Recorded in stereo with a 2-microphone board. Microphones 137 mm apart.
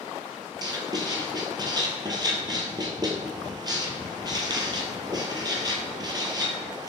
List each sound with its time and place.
0.6 s writing: 30° right (ahead or behind), 0.6 m